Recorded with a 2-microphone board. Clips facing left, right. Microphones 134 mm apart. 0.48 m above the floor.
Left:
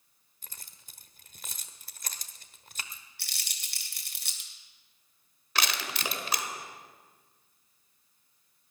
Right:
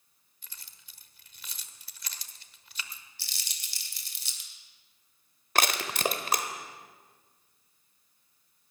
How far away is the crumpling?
About 2.5 m.